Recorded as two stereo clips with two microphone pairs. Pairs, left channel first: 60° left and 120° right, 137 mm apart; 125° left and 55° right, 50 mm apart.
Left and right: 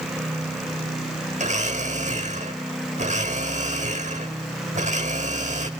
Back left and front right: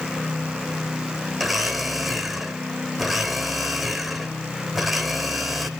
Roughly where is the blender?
Behind right.